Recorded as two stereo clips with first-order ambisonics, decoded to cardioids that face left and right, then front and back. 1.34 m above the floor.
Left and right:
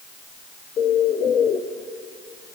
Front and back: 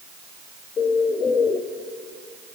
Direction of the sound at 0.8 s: 50° left.